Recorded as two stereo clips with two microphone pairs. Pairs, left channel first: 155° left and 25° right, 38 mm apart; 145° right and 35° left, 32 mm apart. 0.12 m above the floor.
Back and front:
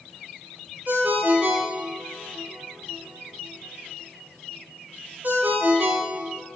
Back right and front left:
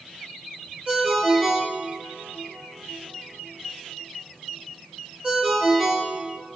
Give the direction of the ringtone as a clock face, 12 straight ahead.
1 o'clock.